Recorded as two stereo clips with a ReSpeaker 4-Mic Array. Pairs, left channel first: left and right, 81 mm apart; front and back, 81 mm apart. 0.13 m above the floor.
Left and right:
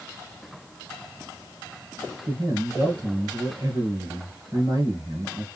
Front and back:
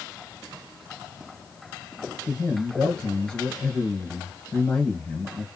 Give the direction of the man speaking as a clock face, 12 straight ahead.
3 o'clock.